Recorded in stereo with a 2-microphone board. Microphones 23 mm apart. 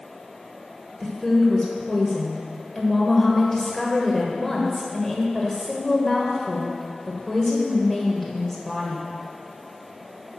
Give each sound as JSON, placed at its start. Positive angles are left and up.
{"t": 1.0, "sound": "a woman speaking", "side_deg": 15, "distance_m": 1.2}